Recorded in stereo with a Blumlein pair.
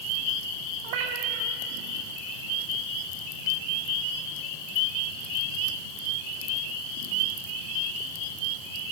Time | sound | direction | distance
0.8 | a cat meowing | 45° right | 1.9 m